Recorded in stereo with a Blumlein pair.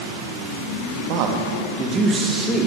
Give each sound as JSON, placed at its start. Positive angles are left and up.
{"t": 1.1, "sound": "a man speaking", "azimuth_deg": -45, "distance_m": 1.0}